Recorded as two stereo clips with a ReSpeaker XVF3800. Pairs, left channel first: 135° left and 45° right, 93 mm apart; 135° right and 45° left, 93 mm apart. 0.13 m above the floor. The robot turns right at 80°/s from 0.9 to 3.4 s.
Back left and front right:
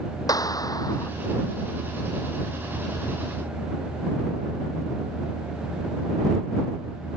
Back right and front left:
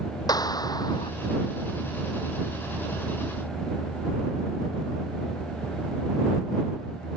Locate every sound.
0.3 s a clap: straight behind; by 1.1 s 160° right